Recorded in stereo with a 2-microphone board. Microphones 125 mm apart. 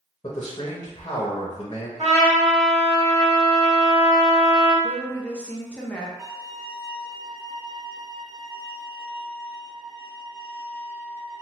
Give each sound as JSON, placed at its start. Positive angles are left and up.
{"t": 0.2, "sound": "a man speaking", "side_deg": 35, "distance_m": 0.6}
{"t": 2.0, "sound": "a trumpet", "side_deg": -55, "distance_m": 1.1}
{"t": 4.8, "sound": "a woman speaking", "side_deg": 10, "distance_m": 0.6}
{"t": 6.2, "sound": "a violin", "side_deg": -25, "distance_m": 1.8}